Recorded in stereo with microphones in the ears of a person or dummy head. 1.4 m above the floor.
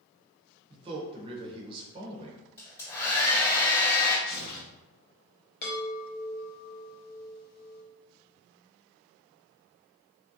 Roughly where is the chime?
Left.